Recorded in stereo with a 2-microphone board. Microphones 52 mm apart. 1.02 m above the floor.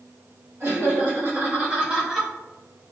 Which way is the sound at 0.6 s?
55° right (ahead or behind).